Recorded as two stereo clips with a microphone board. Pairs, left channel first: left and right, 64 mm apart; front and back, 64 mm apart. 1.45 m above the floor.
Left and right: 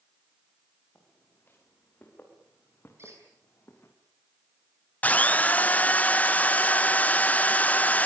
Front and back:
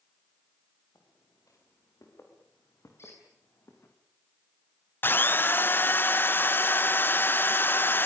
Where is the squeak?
45° right, 9.5 m.